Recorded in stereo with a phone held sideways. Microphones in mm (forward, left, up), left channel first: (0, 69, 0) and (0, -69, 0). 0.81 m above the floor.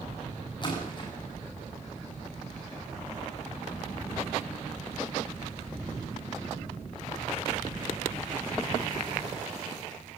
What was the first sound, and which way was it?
A splash, 35° left (ahead or behind).